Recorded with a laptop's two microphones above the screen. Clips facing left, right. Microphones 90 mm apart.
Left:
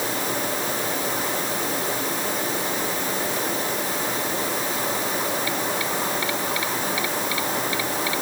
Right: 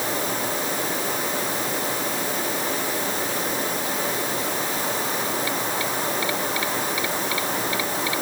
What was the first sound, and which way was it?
Only background noise.